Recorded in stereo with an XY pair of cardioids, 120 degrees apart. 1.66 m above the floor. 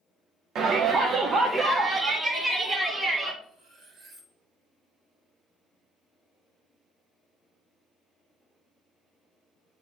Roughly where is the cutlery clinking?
Ahead right.